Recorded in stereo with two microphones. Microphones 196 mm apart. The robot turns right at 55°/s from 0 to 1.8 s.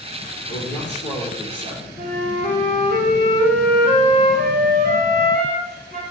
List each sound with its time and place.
0.5 s a man speaking: 70° left, 2.5 m; by 1.9 s 140° left, 2.5 m
2.0 s a flute: 35° left (ahead or behind), 2 m